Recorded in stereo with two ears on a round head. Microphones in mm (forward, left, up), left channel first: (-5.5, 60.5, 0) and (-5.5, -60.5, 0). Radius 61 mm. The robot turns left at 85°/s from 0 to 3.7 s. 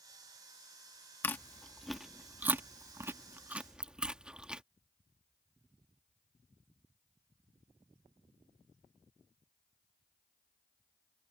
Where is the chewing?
15° left (ahead or behind); by 4.6 s 10° right (ahead or behind).